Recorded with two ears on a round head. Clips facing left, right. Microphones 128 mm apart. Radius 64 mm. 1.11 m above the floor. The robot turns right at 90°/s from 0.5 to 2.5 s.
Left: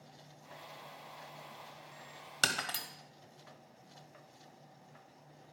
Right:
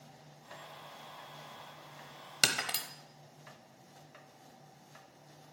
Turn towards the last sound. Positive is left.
turn(degrees=-15)  # may be behind; listen again after turning